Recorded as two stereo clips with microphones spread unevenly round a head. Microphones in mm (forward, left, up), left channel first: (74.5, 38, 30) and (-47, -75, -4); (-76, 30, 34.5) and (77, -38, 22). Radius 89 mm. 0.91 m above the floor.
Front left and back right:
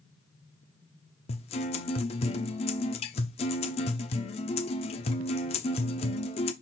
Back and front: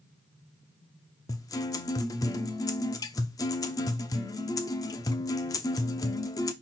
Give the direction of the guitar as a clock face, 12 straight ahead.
9 o'clock.